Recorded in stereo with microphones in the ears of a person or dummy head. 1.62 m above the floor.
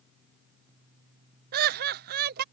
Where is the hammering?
I don't hear hammering.